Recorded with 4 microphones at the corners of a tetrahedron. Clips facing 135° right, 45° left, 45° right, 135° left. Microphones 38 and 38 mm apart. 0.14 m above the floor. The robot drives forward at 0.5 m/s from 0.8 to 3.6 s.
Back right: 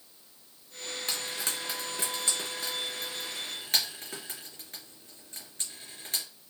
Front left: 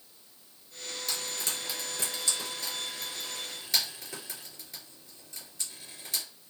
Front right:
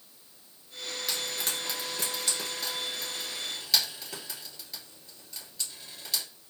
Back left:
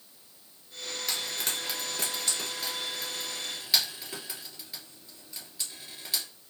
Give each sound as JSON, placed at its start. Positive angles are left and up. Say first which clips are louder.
{"t": 1.1, "sound": "frying", "louder": "back right 1 dB, even", "azimuth_deg": -130, "distance_m": 2.5}